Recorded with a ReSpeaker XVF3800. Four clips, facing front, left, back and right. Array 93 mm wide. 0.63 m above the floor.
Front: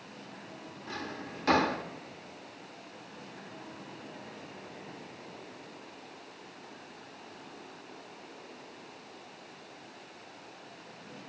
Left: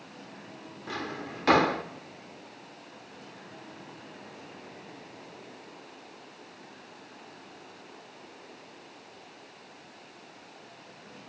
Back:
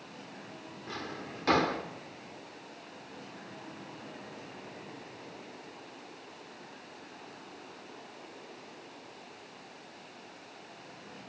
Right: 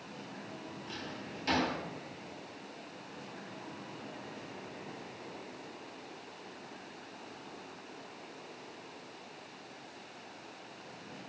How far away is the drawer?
About 0.6 m.